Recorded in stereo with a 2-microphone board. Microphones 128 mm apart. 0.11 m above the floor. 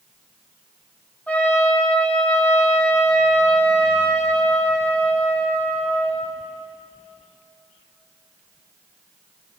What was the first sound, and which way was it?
A trumpet, 10° left (ahead or behind).